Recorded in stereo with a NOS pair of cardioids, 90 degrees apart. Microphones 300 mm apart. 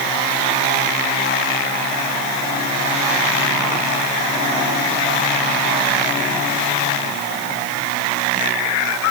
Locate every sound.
Only background noise.